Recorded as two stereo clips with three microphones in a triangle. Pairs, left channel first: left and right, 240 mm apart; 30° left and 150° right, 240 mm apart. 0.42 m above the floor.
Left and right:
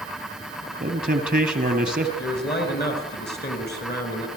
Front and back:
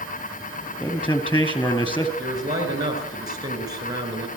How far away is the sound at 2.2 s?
About 5.5 m.